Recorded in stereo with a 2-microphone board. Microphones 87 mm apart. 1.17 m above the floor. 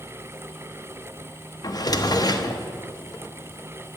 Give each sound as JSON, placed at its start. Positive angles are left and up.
{"t": 1.6, "sound": "a drawer", "side_deg": 45, "distance_m": 0.7}